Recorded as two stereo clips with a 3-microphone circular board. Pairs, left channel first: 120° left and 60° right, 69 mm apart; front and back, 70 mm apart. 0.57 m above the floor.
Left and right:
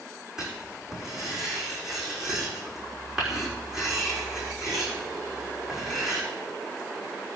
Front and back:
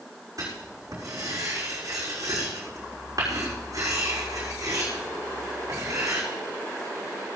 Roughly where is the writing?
Behind right.